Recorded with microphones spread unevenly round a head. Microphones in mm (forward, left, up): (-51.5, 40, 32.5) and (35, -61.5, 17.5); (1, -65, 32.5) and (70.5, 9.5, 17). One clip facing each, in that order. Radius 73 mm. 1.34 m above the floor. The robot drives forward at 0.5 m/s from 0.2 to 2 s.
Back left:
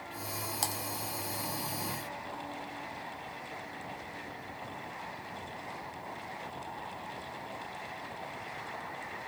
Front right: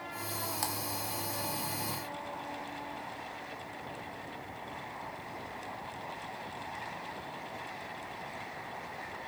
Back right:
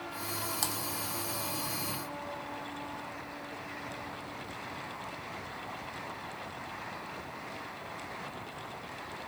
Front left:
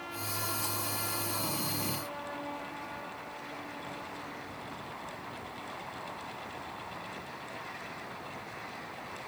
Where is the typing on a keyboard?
165° right, 1.5 m.